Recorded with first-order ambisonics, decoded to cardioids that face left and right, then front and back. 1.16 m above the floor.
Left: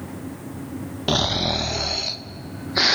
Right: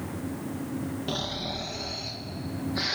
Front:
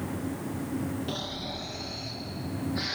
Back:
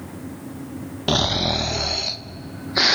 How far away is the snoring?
About 0.7 m.